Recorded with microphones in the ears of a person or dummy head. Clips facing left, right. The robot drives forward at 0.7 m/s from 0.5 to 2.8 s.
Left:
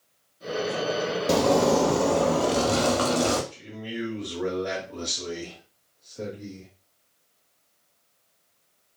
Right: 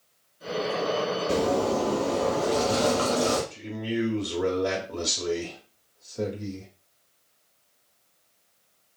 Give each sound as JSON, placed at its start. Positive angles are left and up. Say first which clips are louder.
{"t": 1.3, "sound": "a zipper", "louder": "left 5 dB", "side_deg": 55, "distance_m": 0.6}
{"t": 3.5, "sound": "a man speaking", "louder": "right 6 dB", "side_deg": -60, "distance_m": 0.9}